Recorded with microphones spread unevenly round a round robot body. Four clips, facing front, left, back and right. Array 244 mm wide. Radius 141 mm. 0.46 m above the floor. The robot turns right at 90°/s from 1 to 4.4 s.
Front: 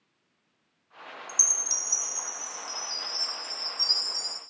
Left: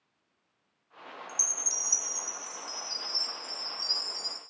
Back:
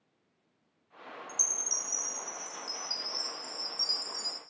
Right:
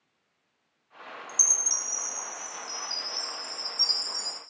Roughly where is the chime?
Ahead.